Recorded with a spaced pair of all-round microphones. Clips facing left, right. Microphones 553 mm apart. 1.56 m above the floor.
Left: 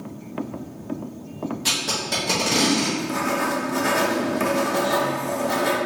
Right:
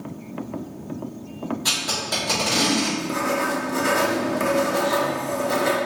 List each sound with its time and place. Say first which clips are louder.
1.6 s tape being pulled: left 1 dB; 50° left (ahead or behind), 1.5 m
3.0 s writing: even; 15° left (ahead or behind), 0.6 m